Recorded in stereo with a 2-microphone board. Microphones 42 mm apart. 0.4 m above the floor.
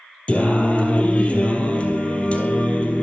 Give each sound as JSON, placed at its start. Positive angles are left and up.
{"t": 0.3, "sound": "singing", "side_deg": 35, "distance_m": 3.0}